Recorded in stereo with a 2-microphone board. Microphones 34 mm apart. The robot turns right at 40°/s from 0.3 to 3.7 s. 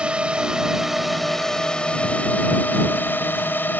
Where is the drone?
35° right; by 3.8 s 105° left.